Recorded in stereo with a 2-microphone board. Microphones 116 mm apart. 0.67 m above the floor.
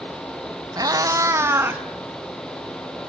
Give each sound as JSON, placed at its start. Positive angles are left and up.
{"t": 0.8, "sound": "a cat meowing", "side_deg": -35, "distance_m": 0.9}